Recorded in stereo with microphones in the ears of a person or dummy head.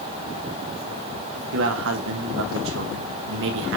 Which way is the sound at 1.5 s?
65° right (ahead or behind).